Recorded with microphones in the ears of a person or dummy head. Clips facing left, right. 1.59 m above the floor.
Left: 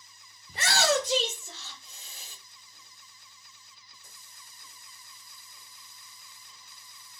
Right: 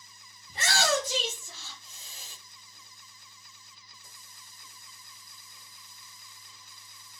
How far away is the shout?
About 0.6 m.